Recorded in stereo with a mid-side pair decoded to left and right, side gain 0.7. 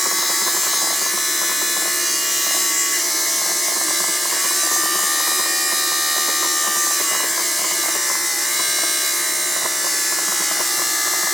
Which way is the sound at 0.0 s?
Straight ahead.